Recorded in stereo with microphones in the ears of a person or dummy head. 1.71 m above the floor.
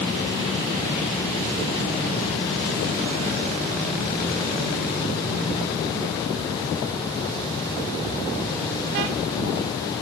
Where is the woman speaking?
No woman speaking in this recording.